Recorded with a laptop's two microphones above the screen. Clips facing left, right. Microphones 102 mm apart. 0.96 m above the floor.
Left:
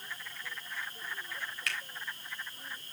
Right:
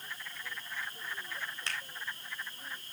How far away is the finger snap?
About 3.5 m.